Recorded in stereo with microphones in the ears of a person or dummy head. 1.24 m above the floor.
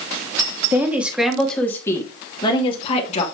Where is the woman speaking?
10° right (ahead or behind), 2.5 m; by 3.2 s 40° left (ahead or behind), 3 m.